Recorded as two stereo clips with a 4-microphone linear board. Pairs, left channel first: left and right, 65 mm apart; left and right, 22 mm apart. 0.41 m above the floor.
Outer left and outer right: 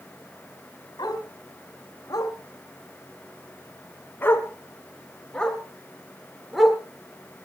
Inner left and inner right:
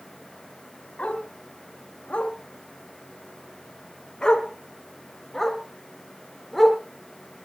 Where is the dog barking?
80° left, 2.5 m; by 7.5 s 5° right (ahead or behind), 3 m.